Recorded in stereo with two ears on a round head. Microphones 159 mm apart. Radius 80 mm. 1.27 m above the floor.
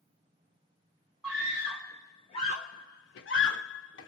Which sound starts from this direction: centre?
A scream, at 1.2 s.